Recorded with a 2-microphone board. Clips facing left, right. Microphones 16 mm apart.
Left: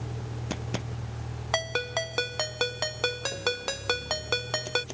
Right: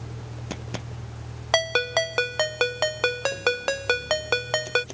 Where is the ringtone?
25° right (ahead or behind).